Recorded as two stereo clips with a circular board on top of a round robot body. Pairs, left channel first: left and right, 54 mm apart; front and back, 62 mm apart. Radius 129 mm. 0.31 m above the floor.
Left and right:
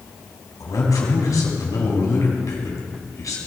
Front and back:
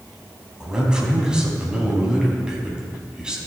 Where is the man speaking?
100° left, 3 m.